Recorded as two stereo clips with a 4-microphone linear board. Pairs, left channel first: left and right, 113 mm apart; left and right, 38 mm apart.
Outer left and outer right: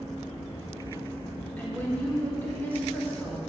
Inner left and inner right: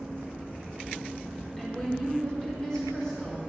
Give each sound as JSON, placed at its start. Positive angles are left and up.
{"t": 1.6, "sound": "a woman speaking", "side_deg": 15, "distance_m": 5.0}